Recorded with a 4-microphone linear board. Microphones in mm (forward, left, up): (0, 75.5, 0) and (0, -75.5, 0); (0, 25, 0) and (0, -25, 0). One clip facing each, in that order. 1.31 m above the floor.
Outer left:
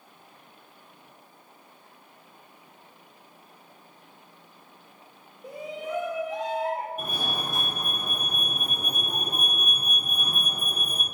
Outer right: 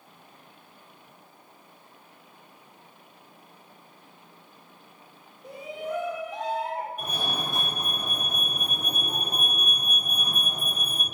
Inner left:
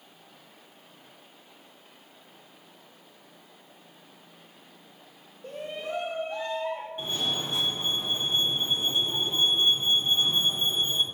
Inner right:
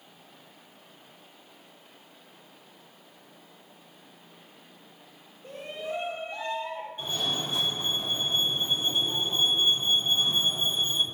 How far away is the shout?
About 1.5 m.